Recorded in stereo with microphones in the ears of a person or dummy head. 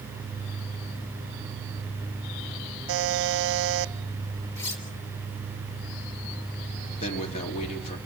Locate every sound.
2.9 s a buzzer: 60° right (ahead or behind), 0.9 m
4.6 s cutlery clinking: 15° left (ahead or behind), 2.5 m
7.0 s a man speaking: 35° left (ahead or behind), 4.5 m